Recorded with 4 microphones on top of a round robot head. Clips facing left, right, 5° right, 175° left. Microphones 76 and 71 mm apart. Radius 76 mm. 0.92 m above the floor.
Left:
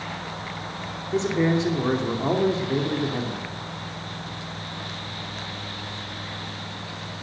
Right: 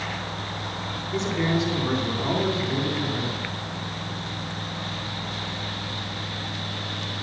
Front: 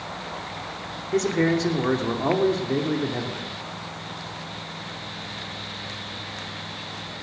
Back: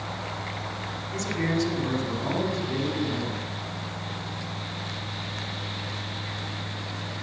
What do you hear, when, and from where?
1.1 s a man speaking: 30° left, 2.5 m